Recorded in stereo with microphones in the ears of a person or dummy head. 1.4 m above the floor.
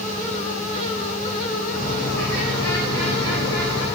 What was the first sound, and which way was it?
A bird, 80° left.